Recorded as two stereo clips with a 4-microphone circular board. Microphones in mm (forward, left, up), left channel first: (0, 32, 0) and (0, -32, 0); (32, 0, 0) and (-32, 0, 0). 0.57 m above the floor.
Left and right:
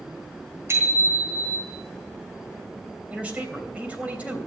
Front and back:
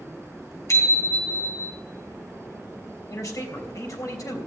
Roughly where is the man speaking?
Ahead.